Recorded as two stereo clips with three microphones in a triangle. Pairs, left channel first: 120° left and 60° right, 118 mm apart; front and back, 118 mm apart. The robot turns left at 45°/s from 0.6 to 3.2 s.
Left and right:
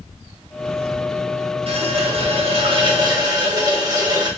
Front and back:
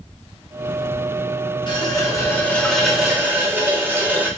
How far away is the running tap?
About 0.6 m.